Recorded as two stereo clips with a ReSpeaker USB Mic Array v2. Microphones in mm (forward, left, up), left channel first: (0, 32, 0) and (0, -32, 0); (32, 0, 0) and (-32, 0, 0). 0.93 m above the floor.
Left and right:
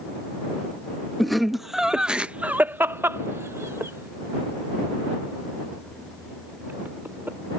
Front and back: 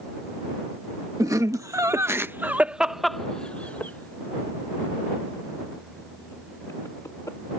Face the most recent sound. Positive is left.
turn(degrees=-35)